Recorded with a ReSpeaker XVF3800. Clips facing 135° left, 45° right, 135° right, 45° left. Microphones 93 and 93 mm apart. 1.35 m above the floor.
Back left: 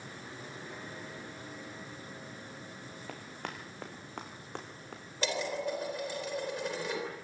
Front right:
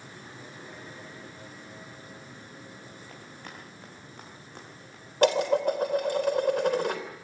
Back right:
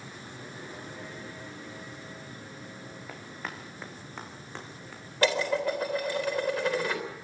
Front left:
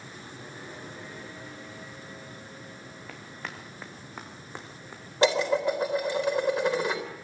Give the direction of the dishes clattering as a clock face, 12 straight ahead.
1 o'clock.